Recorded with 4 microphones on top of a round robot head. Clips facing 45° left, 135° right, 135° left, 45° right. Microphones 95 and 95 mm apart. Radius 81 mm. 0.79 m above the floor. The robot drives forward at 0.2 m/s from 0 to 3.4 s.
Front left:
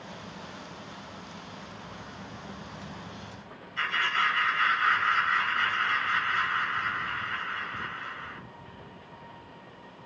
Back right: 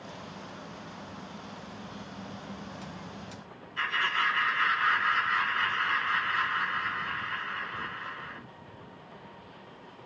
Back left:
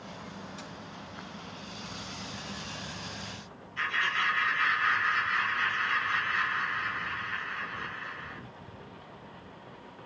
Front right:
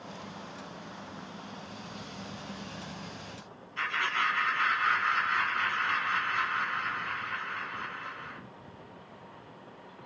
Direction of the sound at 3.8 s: 65° right.